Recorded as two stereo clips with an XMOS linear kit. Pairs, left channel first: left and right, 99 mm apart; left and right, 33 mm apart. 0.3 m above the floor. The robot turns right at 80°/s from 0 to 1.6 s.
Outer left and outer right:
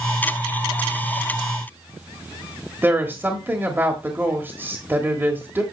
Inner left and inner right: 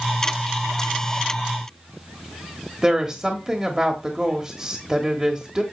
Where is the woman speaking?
20° right (ahead or behind), 1.3 m.